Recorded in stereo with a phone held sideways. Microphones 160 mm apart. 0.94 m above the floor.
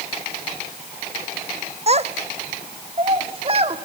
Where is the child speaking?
40° right (ahead or behind), 1.0 m.